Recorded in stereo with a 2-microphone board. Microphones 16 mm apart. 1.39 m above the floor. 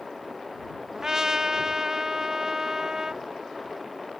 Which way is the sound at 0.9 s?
40° right (ahead or behind).